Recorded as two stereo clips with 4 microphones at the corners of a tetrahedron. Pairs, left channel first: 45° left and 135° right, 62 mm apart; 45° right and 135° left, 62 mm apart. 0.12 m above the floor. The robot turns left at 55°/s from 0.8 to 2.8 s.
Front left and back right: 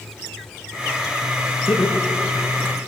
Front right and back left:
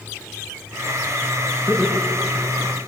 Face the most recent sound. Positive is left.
turn(degrees=25)